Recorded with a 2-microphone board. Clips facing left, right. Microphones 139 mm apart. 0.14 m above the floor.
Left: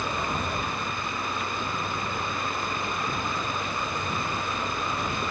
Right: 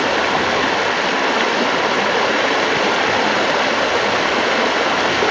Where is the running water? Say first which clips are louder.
Right 13 dB; 90° right.